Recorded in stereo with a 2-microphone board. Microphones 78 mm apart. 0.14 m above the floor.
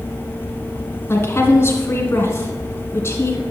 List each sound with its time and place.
1.1 s a woman speaking: 35° left (ahead or behind), 1.3 m